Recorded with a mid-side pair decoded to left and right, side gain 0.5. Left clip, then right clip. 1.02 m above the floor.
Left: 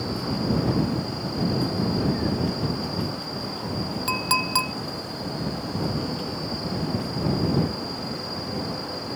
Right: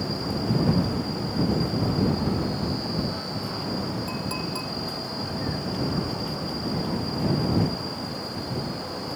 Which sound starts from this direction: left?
A clink, at 4.1 s.